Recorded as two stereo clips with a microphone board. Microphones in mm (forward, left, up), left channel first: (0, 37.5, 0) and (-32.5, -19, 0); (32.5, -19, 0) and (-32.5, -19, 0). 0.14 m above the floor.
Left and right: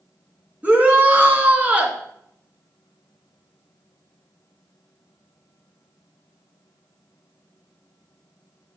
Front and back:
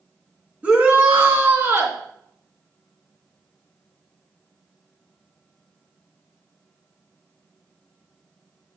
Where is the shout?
145° right, 1.8 m; by 2.0 s 175° right, 2 m.